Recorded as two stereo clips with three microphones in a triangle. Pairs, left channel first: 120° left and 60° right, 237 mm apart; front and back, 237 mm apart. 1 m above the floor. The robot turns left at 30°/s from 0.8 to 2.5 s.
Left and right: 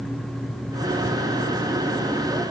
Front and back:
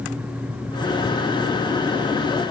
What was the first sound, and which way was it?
Only background noise.